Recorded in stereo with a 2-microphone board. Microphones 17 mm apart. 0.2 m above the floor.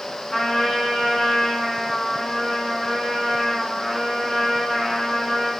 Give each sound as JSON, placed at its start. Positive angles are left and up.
{"t": 0.3, "sound": "a trumpet", "side_deg": 35, "distance_m": 1.3}